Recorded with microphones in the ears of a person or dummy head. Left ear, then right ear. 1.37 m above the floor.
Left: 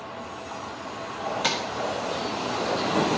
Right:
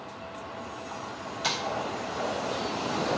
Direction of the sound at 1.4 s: 35° left (ahead or behind).